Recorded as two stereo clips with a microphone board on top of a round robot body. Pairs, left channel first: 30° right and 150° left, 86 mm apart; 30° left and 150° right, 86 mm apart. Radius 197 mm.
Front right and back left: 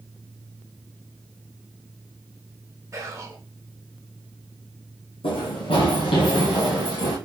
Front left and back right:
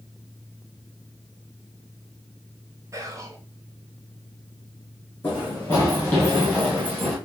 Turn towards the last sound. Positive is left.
turn(degrees=-65)